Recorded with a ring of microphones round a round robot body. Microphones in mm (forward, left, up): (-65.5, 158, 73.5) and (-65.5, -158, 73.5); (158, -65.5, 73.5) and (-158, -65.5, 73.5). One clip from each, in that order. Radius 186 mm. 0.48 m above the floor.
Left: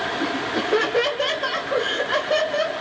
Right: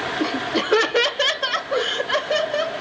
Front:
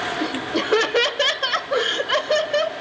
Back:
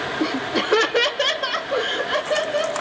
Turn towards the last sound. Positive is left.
turn(degrees=-5)